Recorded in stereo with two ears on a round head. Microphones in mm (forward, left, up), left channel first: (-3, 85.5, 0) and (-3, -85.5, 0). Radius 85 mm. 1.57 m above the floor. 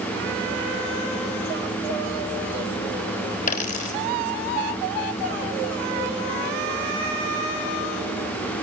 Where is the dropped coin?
40° left (ahead or behind), 3.5 m.